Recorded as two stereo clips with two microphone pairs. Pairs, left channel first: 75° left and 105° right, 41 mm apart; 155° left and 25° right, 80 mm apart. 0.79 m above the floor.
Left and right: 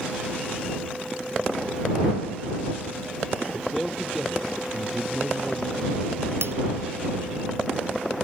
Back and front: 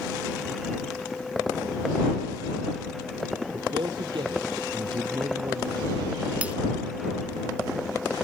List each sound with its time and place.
3.5 s a man speaking: 20° right; by 6.2 s 25° right
6.4 s breaking glass: 95° right